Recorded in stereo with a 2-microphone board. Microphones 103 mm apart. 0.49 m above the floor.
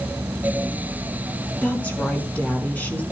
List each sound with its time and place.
1.6 s a woman speaking: 15° left (ahead or behind), 4.5 m